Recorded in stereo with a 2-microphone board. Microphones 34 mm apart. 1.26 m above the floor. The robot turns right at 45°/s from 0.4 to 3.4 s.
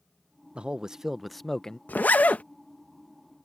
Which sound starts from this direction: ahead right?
A man speaking, at 0.6 s.